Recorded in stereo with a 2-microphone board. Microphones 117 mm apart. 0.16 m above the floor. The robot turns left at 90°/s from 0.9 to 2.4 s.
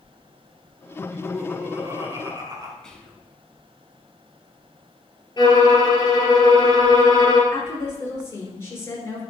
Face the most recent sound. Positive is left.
turn(degrees=20)  # may be behind; listen again after turning